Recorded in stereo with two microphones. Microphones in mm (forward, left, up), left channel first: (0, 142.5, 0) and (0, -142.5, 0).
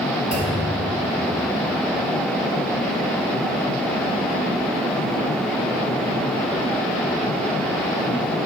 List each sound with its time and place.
0.3 s a clunk: 75° left (ahead or behind), 3.5 m